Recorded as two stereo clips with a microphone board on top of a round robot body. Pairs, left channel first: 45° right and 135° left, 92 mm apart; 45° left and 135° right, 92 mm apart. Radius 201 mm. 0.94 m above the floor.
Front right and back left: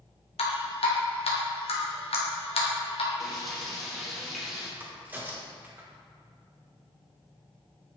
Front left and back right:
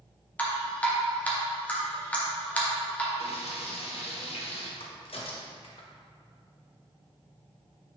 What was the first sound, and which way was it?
Dripping, 30° right.